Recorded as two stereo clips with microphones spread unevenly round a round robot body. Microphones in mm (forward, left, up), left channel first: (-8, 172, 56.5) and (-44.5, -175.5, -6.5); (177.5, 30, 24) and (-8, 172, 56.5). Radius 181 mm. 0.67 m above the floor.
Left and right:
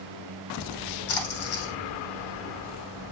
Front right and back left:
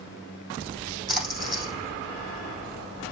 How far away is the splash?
About 4.5 m.